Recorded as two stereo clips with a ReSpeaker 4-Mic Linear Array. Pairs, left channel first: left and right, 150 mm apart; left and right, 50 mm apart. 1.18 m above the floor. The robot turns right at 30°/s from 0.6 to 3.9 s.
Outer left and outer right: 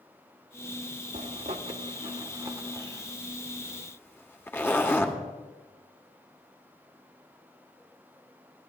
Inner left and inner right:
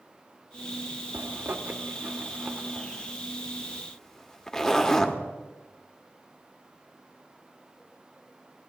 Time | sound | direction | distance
1.1 | a zipper | 50° right (ahead or behind) | 1.0 m